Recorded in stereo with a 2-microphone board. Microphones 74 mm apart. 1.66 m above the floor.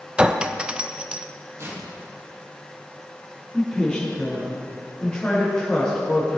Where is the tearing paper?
40° right (ahead or behind), 3.5 m.